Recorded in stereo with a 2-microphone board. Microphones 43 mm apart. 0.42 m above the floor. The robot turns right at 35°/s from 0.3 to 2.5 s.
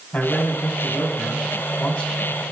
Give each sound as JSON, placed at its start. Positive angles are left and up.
{"t": 0.1, "sound": "a man speaking", "azimuth_deg": 65, "distance_m": 1.6}